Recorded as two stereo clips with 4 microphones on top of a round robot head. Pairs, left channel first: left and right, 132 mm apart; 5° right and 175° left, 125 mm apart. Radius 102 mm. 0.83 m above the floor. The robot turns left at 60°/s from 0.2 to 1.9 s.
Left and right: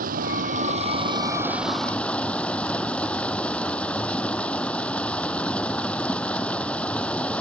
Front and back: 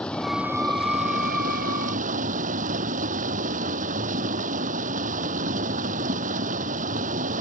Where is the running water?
90° right; by 7.4 s 170° left.